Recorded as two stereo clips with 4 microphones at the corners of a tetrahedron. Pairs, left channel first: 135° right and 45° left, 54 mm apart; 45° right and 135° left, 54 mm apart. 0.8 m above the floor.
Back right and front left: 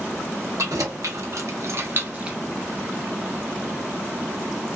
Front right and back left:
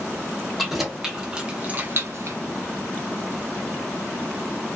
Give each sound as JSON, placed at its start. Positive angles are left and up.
{"t": 0.6, "sound": "keys jangling", "azimuth_deg": 45, "distance_m": 1.0}